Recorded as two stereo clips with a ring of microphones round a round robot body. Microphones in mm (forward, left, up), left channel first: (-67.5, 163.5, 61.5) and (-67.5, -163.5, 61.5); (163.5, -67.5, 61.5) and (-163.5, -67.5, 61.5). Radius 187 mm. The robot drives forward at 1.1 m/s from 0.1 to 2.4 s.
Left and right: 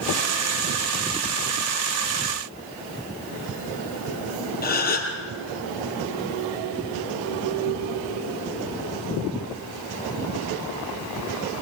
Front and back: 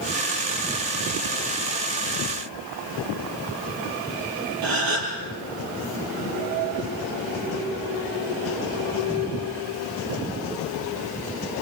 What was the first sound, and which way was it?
A gasp, 150° left.